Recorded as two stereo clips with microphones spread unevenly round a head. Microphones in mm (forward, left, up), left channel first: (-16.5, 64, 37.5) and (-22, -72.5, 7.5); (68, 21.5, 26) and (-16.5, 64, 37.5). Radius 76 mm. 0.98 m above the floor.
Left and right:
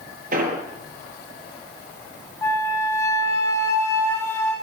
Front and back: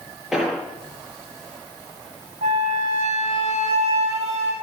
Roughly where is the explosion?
Behind right.